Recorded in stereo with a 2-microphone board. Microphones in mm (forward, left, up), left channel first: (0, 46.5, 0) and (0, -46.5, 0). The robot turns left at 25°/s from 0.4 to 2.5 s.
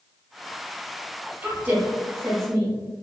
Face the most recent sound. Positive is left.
turn(degrees=-35)  # may be behind; listen again after turning